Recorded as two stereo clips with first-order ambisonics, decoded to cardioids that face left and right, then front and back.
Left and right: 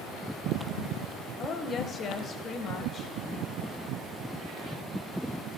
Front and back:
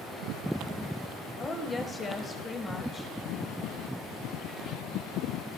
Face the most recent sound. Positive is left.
turn(degrees=70)